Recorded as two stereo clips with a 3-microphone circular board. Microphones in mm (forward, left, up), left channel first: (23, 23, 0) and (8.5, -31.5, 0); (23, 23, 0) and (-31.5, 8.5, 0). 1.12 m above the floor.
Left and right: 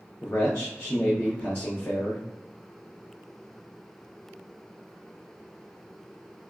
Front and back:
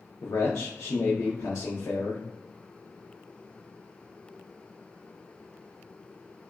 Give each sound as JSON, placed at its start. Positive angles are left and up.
{"t": 0.2, "sound": "a man speaking", "azimuth_deg": 15, "distance_m": 0.6}